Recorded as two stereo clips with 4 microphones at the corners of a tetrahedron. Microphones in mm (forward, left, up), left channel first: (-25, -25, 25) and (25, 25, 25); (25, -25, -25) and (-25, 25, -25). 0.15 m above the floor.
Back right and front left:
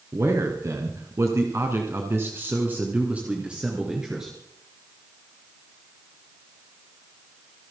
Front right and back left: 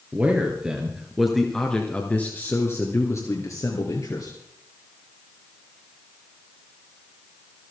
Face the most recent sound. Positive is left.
turn(degrees=-35)